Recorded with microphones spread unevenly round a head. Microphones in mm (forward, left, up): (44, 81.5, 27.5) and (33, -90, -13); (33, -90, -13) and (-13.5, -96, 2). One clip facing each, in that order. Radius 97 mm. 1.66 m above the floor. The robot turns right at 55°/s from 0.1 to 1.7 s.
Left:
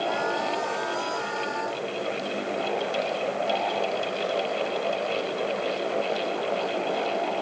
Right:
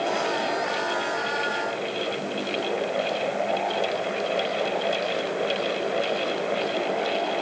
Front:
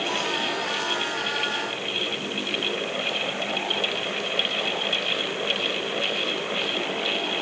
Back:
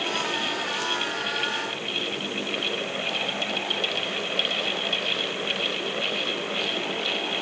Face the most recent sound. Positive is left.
No sound to turn to.